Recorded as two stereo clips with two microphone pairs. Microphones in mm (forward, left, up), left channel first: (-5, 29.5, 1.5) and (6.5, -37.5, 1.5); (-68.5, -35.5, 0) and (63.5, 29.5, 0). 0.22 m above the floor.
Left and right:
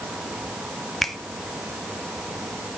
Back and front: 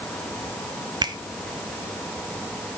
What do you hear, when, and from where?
1.0 s a finger snap: 15° left, 1.0 m